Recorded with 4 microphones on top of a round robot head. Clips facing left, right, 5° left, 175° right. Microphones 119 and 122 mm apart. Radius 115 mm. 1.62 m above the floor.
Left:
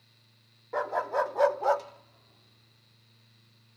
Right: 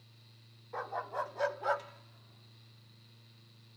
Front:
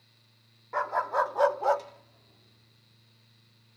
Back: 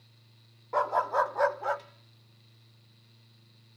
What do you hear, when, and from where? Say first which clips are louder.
0.7 s a dog barking: left 9 dB, back 1 dB; 125° left; by 3.8 s 5° right